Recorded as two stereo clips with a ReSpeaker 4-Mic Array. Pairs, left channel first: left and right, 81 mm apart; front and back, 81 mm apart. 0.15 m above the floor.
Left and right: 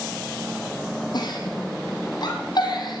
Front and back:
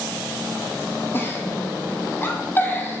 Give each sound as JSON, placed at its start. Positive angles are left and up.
{"t": 1.1, "sound": "a giggle", "azimuth_deg": 65, "distance_m": 2.5}